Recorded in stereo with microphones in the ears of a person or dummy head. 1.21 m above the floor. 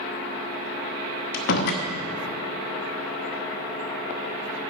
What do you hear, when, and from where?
1.3 s a door slam: 50° left (ahead or behind), 0.8 m